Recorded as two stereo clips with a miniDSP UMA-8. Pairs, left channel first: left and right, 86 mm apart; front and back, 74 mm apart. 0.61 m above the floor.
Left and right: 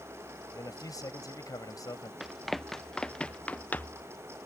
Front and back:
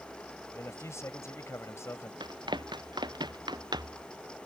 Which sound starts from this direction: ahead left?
A man speaking, at 0.5 s.